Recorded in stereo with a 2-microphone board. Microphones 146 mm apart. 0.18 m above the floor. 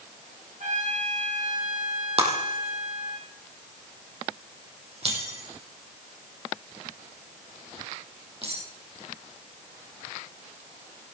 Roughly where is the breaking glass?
Right.